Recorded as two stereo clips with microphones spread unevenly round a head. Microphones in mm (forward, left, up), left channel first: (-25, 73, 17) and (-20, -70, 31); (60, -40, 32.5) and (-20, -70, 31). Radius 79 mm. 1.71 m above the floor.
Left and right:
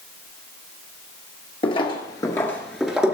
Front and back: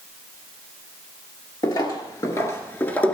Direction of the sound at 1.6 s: 40° left.